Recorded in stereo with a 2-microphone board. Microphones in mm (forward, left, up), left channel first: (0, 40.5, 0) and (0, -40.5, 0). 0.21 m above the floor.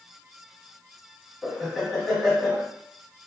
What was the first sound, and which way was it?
Laughter, centre (ahead or behind).